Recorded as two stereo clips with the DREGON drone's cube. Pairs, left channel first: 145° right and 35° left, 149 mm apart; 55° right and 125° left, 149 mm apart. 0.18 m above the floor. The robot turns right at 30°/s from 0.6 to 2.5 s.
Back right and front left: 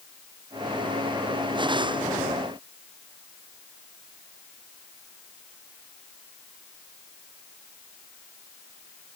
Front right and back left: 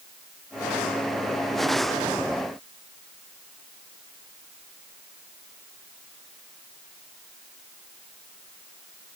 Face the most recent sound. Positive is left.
No sound to turn to.